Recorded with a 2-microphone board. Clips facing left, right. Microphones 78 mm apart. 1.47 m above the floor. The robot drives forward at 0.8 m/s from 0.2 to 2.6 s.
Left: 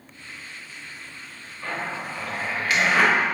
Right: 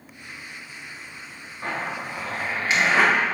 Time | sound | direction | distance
1.6 | a zipper | 35° right (ahead or behind) | 1.2 m